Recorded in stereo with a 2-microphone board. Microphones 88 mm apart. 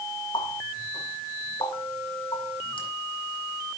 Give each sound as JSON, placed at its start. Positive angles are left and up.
{"t": 0.3, "sound": "a running tap", "side_deg": 80, "distance_m": 7.5}